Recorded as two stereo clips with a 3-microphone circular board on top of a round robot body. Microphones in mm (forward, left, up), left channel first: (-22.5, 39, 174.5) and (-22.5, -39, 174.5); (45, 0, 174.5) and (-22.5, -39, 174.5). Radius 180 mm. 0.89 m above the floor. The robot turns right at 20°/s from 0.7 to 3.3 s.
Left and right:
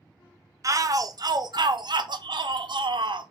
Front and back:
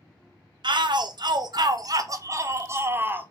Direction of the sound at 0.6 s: 135° right.